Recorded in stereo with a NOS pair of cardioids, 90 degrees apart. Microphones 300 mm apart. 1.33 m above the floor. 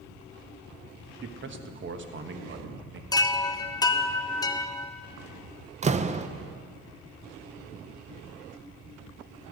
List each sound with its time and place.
1.2 s a man speaking: 40° right, 1.2 m
3.1 s a chime: 15° left, 0.7 m
5.8 s a door slam: 25° right, 0.5 m